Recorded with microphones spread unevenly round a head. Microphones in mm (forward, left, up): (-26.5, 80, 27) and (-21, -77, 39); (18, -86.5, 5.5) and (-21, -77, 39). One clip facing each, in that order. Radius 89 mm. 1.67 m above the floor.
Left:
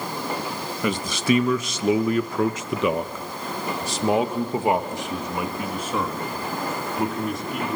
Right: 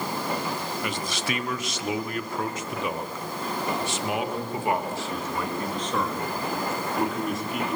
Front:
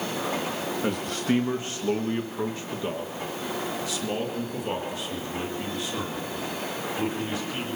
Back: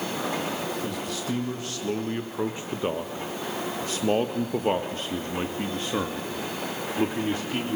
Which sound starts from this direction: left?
A man speaking, at 0.8 s.